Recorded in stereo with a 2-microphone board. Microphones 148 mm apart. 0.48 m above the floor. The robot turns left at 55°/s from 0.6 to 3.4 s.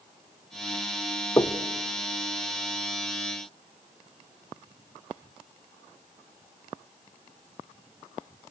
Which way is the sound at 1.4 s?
25° left (ahead or behind).